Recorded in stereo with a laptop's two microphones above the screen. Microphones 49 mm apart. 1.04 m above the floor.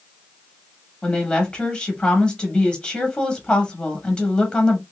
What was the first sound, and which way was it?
A woman speaking, 20° left (ahead or behind).